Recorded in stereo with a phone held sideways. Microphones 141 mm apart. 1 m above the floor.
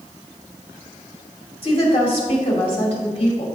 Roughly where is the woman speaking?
Left.